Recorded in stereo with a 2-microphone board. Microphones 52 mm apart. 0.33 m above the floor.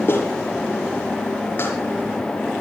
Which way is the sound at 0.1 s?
45° left (ahead or behind).